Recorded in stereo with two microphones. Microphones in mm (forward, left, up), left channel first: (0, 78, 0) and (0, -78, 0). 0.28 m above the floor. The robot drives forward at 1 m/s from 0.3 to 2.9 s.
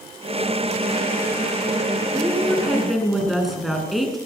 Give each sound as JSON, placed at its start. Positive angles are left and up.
{"t": 2.1, "sound": "a woman speaking", "side_deg": 0, "distance_m": 3.0}